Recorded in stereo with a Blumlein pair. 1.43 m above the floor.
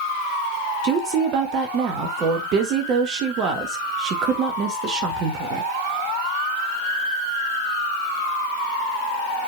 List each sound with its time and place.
0.8 s a woman speaking: 35° right, 1.8 m